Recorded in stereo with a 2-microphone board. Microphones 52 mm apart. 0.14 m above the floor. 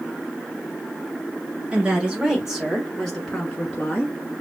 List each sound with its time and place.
1.7 s a woman speaking: 20° right (ahead or behind), 1.6 m; by 4.2 s 30° left (ahead or behind), 1.5 m